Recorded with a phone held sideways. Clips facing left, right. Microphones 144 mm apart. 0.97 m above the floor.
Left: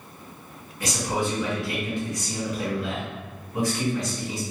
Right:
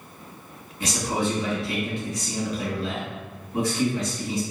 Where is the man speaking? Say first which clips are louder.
Right 1 dB; 25° right (ahead or behind), 1.8 m.